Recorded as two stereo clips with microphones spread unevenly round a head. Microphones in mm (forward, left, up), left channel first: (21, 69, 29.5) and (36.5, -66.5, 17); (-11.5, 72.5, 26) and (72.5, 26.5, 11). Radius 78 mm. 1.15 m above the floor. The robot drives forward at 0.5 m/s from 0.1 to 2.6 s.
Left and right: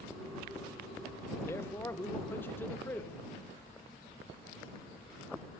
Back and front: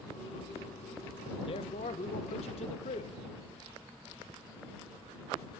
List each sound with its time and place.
1.5 s a man speaking: 170° left, 1.0 m; by 3.2 s 175° left, 1.5 m